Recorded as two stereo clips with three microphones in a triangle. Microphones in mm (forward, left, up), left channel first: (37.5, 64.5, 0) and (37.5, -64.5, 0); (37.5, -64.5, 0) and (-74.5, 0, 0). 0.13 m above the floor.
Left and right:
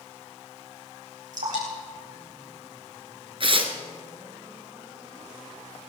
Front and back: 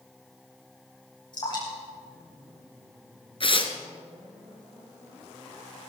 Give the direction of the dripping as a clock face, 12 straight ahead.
3 o'clock.